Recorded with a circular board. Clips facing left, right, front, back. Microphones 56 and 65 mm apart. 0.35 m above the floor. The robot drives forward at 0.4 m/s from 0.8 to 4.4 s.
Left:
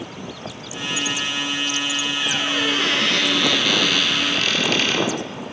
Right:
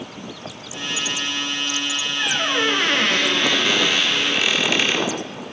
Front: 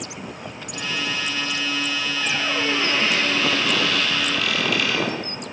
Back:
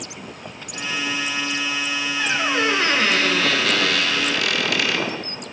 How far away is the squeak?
About 1.1 m.